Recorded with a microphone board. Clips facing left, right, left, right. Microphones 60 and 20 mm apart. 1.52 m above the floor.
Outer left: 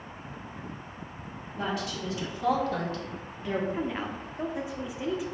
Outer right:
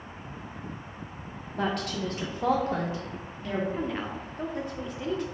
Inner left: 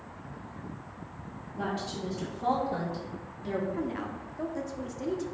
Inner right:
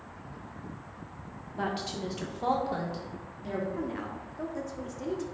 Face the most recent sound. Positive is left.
turn(degrees=5)  # may be behind; listen again after turning